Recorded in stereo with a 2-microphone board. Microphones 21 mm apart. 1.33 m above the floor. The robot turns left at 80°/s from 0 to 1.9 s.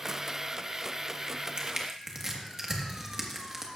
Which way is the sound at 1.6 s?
50° right (ahead or behind).